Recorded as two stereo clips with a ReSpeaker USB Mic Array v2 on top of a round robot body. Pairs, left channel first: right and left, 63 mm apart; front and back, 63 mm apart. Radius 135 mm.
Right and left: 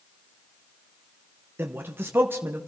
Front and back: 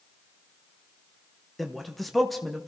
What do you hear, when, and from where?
1.6 s a man speaking: 90° left, 1.1 m